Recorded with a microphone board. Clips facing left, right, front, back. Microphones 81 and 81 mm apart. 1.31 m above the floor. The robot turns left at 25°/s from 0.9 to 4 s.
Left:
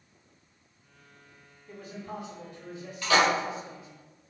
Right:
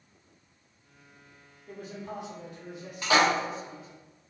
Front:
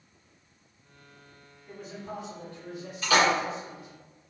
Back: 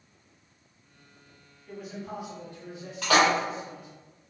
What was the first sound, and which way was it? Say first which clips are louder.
A man speaking: right 1 dB, back 2 dB; 90° right.